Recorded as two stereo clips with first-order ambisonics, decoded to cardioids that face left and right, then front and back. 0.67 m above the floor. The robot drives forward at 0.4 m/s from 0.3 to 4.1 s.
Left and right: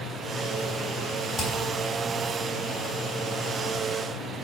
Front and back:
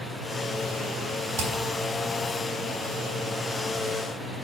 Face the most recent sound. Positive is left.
turn(degrees=-165)